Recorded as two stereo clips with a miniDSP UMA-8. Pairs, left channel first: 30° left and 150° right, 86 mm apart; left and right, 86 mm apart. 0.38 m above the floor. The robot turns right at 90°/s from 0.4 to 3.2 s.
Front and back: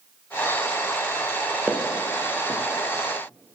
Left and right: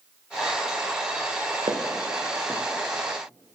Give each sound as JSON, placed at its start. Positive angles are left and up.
{"t": 1.7, "sound": "footsteps", "azimuth_deg": -75, "distance_m": 1.0}